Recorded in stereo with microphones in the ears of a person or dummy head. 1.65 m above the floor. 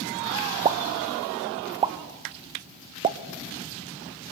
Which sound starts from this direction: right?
A pop, at 0.7 s.